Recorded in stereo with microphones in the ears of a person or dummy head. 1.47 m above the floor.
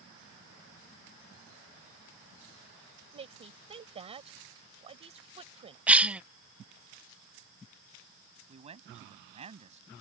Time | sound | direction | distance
3.1 | a woman speaking | 25° right (ahead or behind) | ?
5.9 | a cough | 5° right (ahead or behind) | ?
8.5 | a man speaking | 35° right (ahead or behind) | ?